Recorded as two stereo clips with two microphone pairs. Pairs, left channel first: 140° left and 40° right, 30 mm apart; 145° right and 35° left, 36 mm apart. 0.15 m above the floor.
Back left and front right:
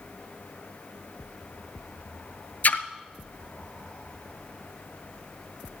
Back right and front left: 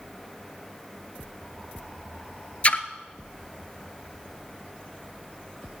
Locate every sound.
2.6 s a splash: 160° left, 0.7 m